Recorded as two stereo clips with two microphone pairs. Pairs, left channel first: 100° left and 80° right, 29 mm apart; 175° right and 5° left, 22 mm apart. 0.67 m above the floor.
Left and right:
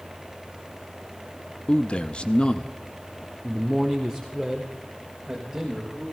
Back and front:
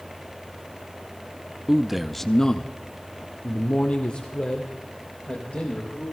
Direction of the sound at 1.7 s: 60° left.